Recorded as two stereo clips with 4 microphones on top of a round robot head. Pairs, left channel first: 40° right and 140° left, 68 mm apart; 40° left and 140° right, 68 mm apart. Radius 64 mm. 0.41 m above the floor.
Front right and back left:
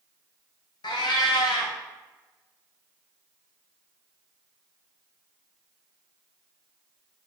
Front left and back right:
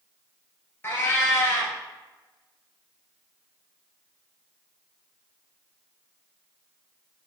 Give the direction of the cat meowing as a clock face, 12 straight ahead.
1 o'clock.